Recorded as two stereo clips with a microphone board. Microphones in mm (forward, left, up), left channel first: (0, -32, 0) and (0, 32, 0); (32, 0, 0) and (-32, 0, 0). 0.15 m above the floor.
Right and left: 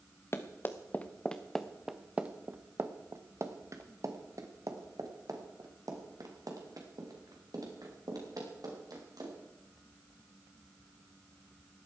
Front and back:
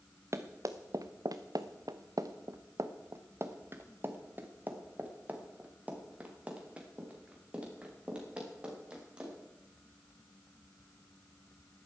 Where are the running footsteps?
135° right, 1.4 m; by 9.3 s 105° left, 6 m.